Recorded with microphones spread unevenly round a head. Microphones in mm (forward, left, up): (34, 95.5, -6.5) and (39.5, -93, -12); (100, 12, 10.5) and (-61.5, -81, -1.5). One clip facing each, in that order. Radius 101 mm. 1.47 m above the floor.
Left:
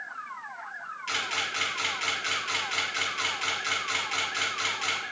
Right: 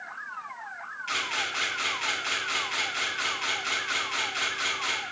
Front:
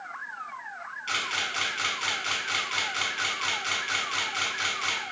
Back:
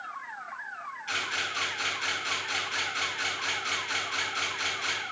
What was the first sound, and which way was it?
A camera shutter, 65° left.